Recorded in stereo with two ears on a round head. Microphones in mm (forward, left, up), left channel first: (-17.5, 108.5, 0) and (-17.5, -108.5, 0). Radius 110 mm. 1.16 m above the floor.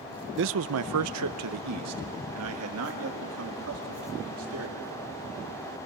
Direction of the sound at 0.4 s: 50° right (ahead or behind).